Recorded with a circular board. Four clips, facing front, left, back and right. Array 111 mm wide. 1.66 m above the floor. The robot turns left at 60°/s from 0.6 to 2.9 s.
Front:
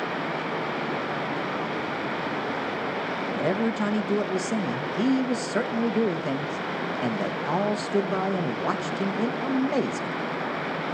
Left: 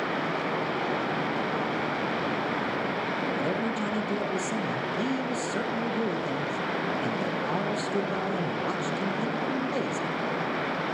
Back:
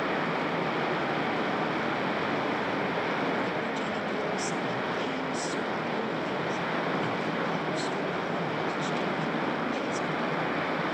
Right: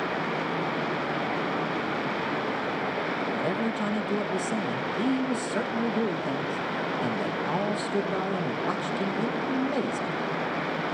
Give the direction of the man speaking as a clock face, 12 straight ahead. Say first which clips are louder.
Right 1 dB, front 5 dB; 12 o'clock.